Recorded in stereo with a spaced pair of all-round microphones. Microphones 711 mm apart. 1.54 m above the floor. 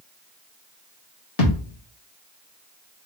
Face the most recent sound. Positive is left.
turn(degrees=55)  # may be behind; listen again after turning